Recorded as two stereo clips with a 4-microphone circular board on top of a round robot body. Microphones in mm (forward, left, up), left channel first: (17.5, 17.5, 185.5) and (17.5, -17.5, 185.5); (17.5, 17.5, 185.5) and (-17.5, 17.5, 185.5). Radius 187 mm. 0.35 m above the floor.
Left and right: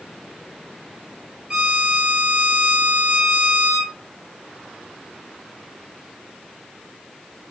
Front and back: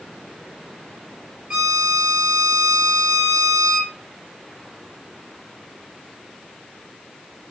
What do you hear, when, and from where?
1.5 s a violin: 160° right, 1.9 m